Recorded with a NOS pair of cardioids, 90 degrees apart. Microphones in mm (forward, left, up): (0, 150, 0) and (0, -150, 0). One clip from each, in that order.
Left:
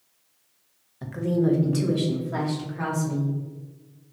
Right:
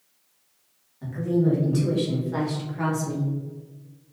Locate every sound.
1.0 s a woman speaking: 60° left, 1.2 m; by 3.3 s 5° right, 2.5 m